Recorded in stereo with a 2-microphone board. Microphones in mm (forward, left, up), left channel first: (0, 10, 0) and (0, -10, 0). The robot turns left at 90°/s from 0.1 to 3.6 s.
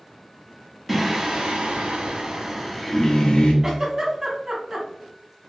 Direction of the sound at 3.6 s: 20° right (ahead or behind).